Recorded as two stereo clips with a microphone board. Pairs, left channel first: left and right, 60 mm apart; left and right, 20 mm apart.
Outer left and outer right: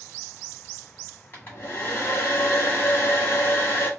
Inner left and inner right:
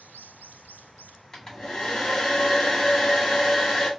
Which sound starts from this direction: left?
A hair dryer, at 1.3 s.